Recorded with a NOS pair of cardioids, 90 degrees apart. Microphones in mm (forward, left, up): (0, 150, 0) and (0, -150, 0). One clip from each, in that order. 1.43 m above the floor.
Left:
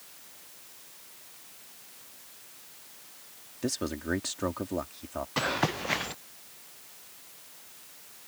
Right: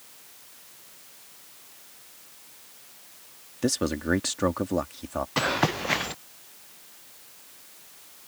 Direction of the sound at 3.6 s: 35° right.